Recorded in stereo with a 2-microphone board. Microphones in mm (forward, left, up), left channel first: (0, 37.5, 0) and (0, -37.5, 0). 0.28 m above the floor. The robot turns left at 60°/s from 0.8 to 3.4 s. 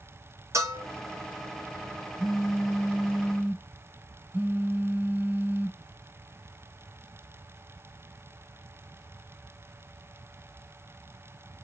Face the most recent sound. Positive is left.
turn(degrees=-25)  # may be behind; listen again after turning